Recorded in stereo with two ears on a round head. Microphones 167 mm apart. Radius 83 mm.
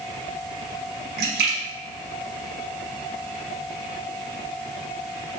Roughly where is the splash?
Right.